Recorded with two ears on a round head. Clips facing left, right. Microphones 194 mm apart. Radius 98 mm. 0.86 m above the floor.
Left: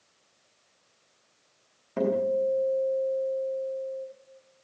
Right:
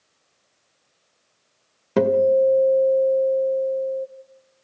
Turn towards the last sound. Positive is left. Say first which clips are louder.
# right 9 dB
turn(degrees=-90)